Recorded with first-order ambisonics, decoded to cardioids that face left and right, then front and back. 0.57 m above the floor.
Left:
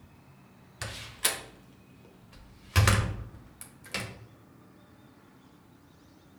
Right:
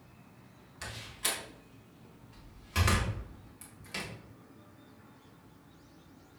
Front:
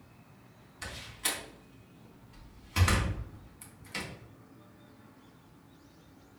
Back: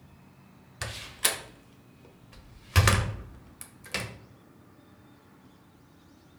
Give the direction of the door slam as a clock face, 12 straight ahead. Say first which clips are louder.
Left 4 dB, back 6 dB; 7 o'clock.